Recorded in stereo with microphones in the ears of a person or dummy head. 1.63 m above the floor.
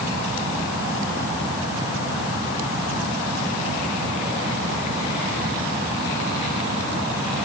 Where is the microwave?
No microwave in this recording.